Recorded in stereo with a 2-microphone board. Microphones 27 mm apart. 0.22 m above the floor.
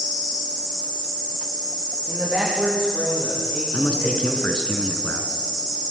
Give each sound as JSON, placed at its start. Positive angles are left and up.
{"t": 2.1, "sound": "a man speaking", "side_deg": -25, "distance_m": 9.5}
{"t": 3.7, "sound": "a man speaking", "side_deg": 50, "distance_m": 2.5}